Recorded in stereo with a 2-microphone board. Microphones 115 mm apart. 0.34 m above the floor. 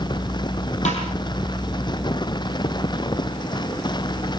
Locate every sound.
0.8 s a snare drum: 80° left, 8 m